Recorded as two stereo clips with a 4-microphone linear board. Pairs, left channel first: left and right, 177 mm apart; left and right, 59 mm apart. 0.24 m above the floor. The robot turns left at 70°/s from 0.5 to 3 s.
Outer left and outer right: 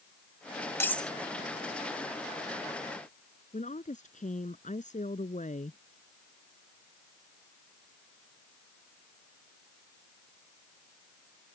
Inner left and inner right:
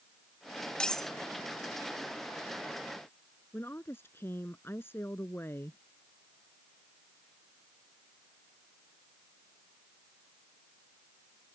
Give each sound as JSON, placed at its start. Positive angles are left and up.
{"t": 0.8, "sound": "cutlery clinking", "side_deg": 15}
{"t": 3.5, "sound": "a woman speaking", "side_deg": 45}